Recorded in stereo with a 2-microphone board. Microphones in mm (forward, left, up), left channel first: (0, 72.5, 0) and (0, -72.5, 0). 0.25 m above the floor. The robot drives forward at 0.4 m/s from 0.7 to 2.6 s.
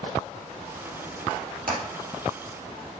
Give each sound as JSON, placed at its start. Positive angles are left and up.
{"t": 1.7, "sound": "hammering", "side_deg": -80, "distance_m": 3.5}